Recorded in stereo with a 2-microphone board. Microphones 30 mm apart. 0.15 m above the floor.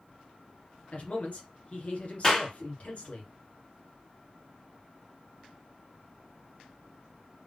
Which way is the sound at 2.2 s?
15° left (ahead or behind).